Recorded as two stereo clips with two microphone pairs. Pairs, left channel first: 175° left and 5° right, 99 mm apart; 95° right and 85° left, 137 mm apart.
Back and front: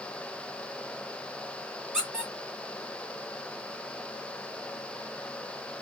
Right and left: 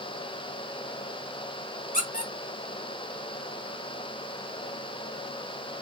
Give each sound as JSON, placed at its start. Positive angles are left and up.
{"t": 1.9, "sound": "a squeak", "azimuth_deg": -85, "distance_m": 2.0}